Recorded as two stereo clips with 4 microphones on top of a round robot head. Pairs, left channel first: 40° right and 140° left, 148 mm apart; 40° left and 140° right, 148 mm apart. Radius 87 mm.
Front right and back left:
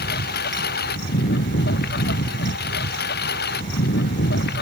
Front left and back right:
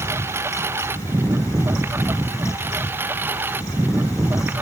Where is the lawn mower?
65° right; by 4.6 s 60° right.